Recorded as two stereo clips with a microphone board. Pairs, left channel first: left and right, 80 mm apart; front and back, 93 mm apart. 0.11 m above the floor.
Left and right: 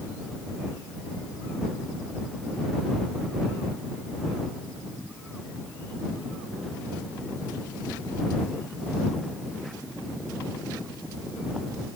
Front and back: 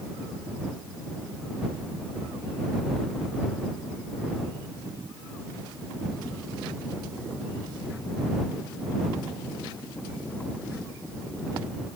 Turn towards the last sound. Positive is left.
No sound to turn to.